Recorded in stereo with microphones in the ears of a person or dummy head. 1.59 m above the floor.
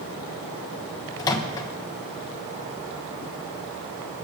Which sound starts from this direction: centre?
A microwave, at 1.2 s.